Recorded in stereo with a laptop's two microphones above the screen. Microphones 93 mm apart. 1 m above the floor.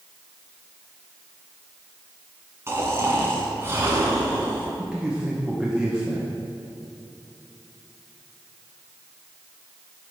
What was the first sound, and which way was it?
Snoring, 30° right (ahead or behind).